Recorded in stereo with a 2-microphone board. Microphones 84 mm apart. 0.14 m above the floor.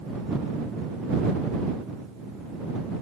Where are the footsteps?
No footsteps in this recording.